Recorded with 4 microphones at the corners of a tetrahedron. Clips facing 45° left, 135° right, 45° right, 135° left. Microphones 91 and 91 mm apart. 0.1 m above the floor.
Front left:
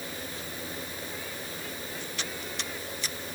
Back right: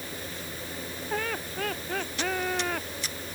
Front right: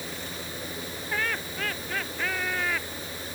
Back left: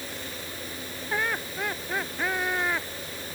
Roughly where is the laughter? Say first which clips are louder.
Back right 7 dB, back left 2 dB; behind right.